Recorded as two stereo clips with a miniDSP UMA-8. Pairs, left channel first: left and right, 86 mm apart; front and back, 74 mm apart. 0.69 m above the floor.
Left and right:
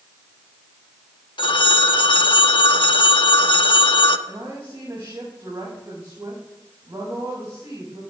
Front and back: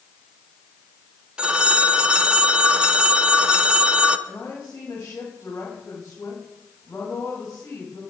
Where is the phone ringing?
105° left, 0.9 m.